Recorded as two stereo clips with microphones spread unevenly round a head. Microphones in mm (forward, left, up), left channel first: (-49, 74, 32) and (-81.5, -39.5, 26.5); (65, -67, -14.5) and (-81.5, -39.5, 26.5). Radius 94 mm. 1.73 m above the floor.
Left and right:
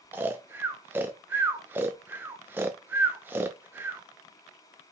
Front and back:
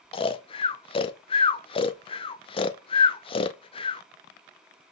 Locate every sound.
0.1 s snoring: 50° right, 0.8 m